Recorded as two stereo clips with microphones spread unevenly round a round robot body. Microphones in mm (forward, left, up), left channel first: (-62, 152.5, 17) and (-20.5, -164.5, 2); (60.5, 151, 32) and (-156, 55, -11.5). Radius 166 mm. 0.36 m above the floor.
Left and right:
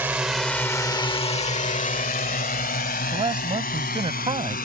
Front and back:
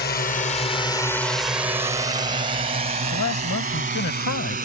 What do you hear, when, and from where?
0.0 s a drone: 5° right; by 4.7 s 155° left
3.1 s a man speaking: 10° right